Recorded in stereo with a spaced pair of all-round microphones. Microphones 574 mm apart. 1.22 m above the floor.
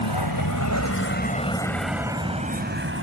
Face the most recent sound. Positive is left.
turn(degrees=-25)  # may be behind; listen again after turning